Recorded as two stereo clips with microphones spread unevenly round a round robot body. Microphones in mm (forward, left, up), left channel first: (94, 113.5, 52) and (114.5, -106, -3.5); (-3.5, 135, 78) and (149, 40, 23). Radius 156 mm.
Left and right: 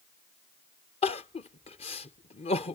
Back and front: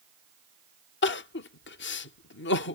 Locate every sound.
1.0 s crying: 170° left